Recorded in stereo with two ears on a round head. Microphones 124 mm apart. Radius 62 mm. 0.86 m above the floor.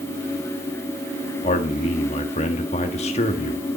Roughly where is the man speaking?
Left.